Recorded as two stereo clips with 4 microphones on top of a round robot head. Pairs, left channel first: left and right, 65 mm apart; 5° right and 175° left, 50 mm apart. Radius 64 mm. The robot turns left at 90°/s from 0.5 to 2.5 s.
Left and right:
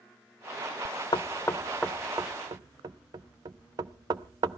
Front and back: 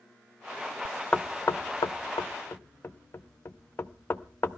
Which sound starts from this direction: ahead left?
Knocking, at 1.1 s.